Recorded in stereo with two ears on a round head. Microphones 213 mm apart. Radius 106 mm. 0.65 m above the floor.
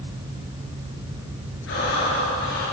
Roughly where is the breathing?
Left.